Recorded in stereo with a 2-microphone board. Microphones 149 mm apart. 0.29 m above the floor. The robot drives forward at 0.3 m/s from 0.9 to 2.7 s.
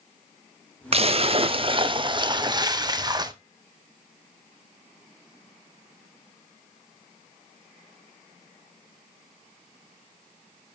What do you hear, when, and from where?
0.9 s a splash: 40° right (ahead or behind), 0.6 m; by 3.3 s 30° right (ahead or behind), 0.8 m